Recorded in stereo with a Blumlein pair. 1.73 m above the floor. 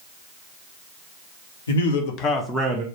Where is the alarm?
I don't hear an alarm.